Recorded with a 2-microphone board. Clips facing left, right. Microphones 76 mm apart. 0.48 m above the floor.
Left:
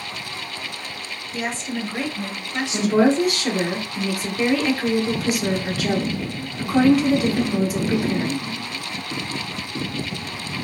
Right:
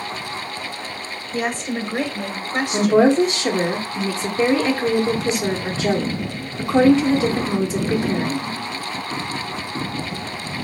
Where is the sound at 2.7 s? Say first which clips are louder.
Right 3 dB; 25° right (ahead or behind), 1.0 m.